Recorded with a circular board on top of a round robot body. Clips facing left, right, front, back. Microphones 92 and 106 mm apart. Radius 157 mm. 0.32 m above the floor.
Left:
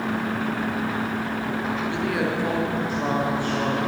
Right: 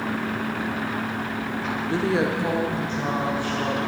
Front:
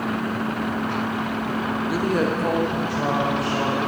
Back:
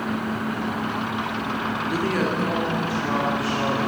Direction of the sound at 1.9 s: 80° right.